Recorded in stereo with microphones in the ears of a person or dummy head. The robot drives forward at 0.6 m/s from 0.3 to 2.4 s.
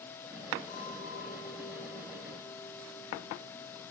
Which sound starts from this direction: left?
A clink, at 0.7 s.